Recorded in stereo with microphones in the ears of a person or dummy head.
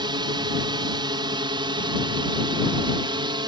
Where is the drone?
25° right (ahead or behind); by 3.5 s 20° right (ahead or behind).